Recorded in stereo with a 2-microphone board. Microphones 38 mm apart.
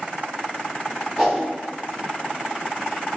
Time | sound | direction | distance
1.2 | a whoosh | 5° right (ahead or behind) | 1.7 m